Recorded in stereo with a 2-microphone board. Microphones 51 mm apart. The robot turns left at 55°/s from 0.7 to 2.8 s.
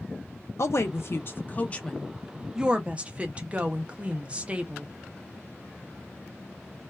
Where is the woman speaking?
90° left, 0.6 m; by 4.9 s 30° right, 0.6 m.